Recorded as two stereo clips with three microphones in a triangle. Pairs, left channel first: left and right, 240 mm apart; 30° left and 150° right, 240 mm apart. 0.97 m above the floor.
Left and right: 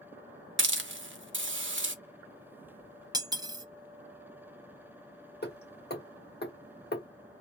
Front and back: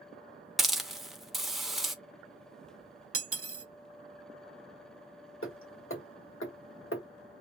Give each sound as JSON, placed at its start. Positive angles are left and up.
{"t": 0.6, "sound": "a hiss", "azimuth_deg": -60, "distance_m": 0.6}
{"t": 3.1, "sound": "cutlery clinking", "azimuth_deg": -165, "distance_m": 0.6}
{"t": 5.4, "sound": "hammering", "azimuth_deg": 50, "distance_m": 1.0}